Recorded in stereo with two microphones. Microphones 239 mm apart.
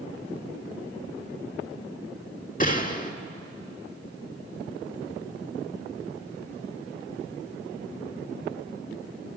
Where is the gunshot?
35° left (ahead or behind), 1.4 m.